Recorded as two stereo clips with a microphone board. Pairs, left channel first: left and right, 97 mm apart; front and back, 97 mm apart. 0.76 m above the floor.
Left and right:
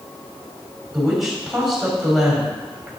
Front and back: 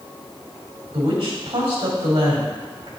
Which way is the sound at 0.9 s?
Straight behind.